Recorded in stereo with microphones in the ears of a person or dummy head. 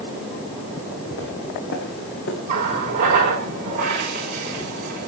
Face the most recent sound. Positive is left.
turn(degrees=-40)  # may be behind; listen again after turning